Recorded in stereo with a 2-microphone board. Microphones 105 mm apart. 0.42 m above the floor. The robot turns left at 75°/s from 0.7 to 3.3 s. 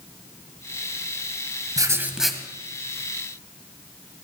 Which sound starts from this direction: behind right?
Writing, at 1.8 s.